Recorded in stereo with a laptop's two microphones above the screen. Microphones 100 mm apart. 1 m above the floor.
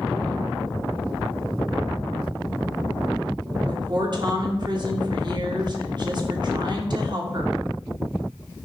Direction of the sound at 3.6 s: 50° right (ahead or behind).